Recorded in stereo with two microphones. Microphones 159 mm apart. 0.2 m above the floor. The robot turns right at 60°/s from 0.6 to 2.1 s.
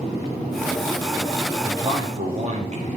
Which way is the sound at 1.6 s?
20° right (ahead or behind).